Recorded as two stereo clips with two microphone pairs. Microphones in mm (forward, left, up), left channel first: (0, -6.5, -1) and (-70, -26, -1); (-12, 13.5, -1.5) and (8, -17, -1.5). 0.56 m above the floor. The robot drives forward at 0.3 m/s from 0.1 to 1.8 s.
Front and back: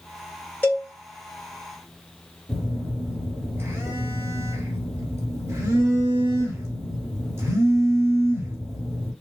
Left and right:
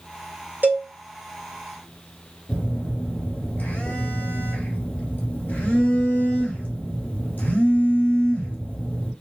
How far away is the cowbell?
About 2.5 m.